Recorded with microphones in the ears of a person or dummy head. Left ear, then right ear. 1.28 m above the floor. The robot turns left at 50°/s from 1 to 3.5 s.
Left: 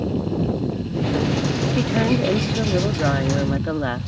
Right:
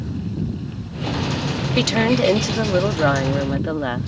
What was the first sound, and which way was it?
A woman speaking, 80° right.